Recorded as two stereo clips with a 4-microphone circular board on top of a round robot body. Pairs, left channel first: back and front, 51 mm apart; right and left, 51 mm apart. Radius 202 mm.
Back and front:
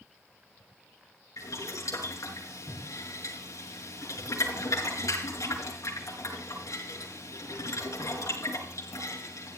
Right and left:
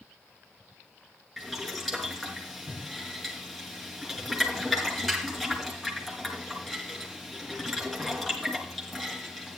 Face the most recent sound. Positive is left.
turn(degrees=180)